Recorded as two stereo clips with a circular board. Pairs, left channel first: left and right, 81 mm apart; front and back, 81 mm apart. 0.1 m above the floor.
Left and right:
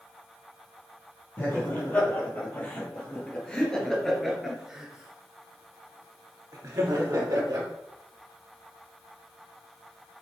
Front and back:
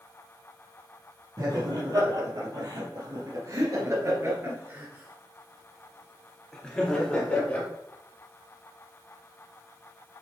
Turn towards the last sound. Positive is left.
turn(degrees=-65)